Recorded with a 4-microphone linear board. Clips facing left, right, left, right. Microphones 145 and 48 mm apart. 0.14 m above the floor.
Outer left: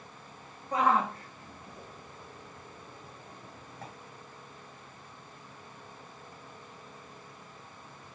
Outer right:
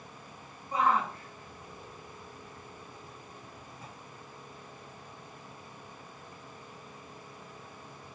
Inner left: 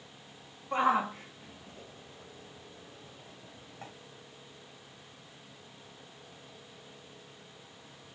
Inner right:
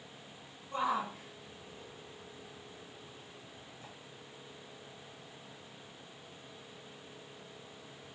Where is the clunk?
I don't hear a clunk.